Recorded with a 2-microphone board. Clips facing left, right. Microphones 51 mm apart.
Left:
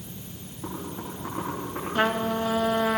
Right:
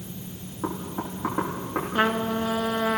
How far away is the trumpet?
About 1.1 m.